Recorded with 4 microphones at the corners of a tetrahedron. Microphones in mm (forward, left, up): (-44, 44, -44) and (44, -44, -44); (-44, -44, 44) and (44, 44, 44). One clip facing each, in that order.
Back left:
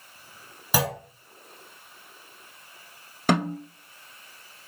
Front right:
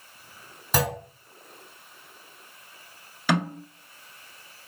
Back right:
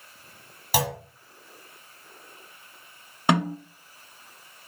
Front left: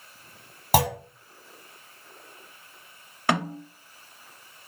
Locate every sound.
0.7 s a clunk: 50° left, 0.7 m
3.3 s a snare drum: 160° left, 1.0 m